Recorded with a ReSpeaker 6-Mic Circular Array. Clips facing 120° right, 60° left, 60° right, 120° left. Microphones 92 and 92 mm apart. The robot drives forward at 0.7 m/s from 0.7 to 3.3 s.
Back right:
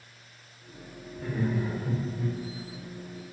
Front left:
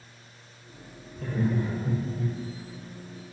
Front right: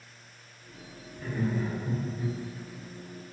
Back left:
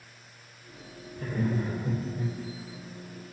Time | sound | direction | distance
1.2 | laughter | 85° left | 3 m